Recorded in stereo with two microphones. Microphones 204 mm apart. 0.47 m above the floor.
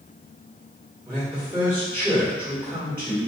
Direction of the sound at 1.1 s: 10° right (ahead or behind).